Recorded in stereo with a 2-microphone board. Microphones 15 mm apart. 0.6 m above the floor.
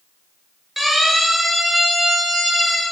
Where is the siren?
10° right (ahead or behind), 10 m.